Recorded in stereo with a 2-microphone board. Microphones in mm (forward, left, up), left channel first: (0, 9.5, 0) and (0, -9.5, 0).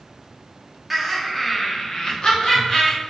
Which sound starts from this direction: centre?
Laughter, at 0.9 s.